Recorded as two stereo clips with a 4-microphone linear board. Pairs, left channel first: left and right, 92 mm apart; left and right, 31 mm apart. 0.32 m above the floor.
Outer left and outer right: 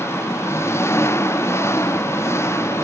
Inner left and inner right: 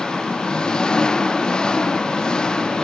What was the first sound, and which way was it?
An engine running, 30° left (ahead or behind).